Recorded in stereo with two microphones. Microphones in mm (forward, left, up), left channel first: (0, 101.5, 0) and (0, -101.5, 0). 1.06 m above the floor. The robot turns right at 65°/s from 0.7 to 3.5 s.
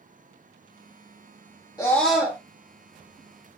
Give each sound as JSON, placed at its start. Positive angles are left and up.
{"t": 1.8, "sound": "a scream", "azimuth_deg": 160, "distance_m": 1.7}